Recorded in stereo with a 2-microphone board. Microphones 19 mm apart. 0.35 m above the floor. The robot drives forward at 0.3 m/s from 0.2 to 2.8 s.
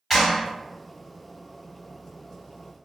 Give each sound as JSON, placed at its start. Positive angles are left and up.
{"t": 0.1, "sound": "a clap", "side_deg": 0, "distance_m": 1.9}